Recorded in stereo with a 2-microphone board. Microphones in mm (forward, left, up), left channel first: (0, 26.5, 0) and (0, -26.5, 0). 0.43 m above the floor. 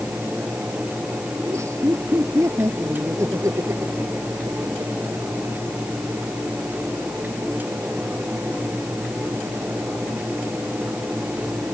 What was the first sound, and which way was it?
Laughter, 65° right (ahead or behind).